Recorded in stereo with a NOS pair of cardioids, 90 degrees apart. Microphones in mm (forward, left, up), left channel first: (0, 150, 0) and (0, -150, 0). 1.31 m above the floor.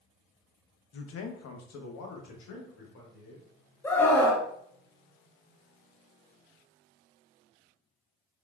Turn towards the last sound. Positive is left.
turn(degrees=5)